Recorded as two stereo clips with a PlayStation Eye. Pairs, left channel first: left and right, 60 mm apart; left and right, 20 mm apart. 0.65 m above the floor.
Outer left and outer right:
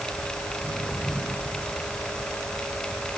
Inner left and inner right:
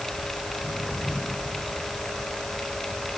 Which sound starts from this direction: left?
Footsteps, at 0.5 s.